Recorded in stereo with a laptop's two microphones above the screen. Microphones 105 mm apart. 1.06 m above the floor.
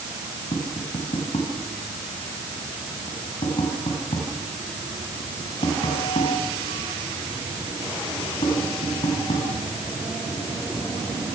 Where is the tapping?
80° left, 5.5 m.